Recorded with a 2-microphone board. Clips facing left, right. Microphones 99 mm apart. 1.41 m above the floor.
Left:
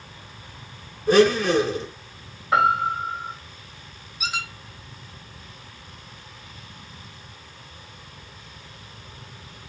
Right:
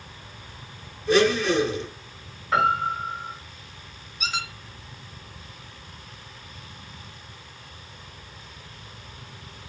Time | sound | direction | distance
1.1 | a blender | 40° left (ahead or behind) | 1.3 m
2.5 | a piano | 15° left (ahead or behind) | 1.8 m
4.2 | a squeak | 5° left (ahead or behind) | 1.0 m